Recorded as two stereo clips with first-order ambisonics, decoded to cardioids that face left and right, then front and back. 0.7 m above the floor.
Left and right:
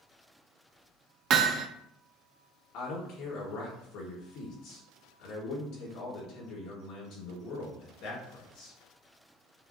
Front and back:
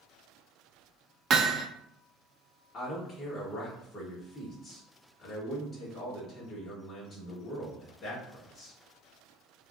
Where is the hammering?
130° right, 0.5 m.